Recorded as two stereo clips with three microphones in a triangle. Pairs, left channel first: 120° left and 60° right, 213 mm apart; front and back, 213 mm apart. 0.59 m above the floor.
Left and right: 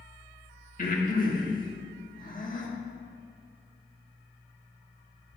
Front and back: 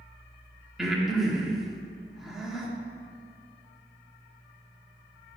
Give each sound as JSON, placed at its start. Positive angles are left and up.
{"t": 0.8, "sound": "breathing", "azimuth_deg": 90, "distance_m": 1.0}